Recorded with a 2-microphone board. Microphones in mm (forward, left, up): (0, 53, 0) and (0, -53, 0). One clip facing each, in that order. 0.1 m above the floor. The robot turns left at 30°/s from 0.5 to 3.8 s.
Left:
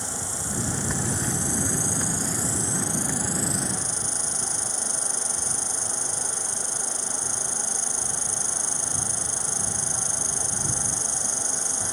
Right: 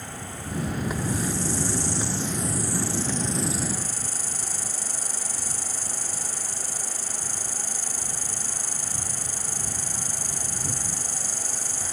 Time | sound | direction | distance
0.0 | an insect | 90° left | ?